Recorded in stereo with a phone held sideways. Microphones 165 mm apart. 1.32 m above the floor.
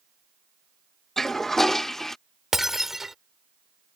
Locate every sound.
1.2 s a toilet flushing: centre (ahead or behind)
2.5 s breaking glass: centre (ahead or behind)